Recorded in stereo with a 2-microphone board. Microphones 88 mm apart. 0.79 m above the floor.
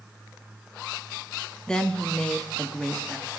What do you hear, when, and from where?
1.7 s a woman speaking: 10° left (ahead or behind), 0.6 m